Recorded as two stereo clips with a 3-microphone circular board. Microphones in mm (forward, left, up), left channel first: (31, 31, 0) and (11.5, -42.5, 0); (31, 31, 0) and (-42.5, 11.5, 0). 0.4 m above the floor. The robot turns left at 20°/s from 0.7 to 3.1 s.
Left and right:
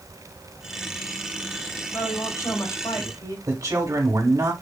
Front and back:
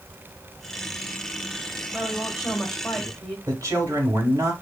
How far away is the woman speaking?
About 1.8 m.